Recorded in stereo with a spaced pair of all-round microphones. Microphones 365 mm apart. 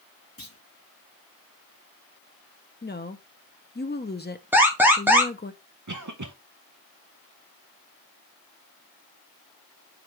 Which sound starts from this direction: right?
A cough, at 5.9 s.